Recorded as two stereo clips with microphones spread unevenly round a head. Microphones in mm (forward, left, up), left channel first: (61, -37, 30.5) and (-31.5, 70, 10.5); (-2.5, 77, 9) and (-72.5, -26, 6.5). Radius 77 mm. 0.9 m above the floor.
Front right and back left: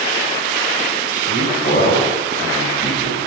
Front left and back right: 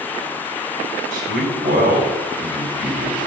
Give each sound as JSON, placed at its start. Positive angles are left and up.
{"t": 1.1, "sound": "a man speaking", "azimuth_deg": -90, "distance_m": 4.5}